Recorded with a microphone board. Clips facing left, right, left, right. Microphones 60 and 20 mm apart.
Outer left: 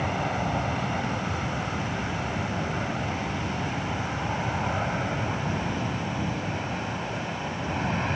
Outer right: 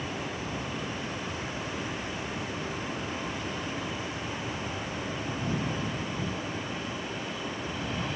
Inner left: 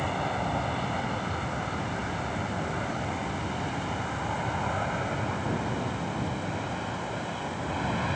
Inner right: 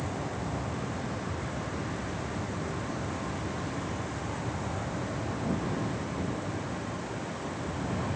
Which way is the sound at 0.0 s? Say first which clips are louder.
Outer left 7 dB, inner left 6 dB; 55° left (ahead or behind).